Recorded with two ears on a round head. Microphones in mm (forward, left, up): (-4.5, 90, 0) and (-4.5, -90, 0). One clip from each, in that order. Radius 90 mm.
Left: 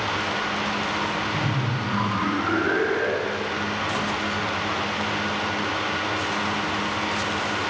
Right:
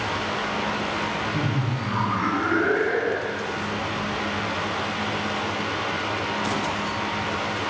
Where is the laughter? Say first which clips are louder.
Left 1 dB; 35° right (ahead or behind), 2 m; by 3.5 s 55° right (ahead or behind), 3 m.